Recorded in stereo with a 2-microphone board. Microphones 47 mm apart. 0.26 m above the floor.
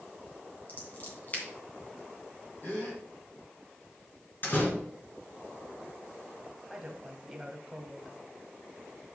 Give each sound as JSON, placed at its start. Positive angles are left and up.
{"t": 0.7, "sound": "scissors", "side_deg": 40, "distance_m": 2.5}
{"t": 2.6, "sound": "a gasp", "side_deg": 45, "distance_m": 3.5}
{"t": 4.4, "sound": "a door slam", "side_deg": 40, "distance_m": 2.0}
{"t": 6.7, "sound": "a woman speaking", "side_deg": -5, "distance_m": 1.2}